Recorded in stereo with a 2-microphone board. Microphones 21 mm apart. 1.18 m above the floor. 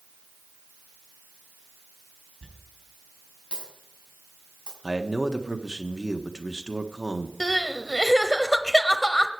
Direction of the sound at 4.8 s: 25° right (ahead or behind).